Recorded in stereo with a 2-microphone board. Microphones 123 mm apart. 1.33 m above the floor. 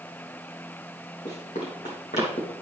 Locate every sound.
1.2 s running footsteps: 70° left (ahead or behind), 3.5 m; by 2.5 s 65° left (ahead or behind), 3 m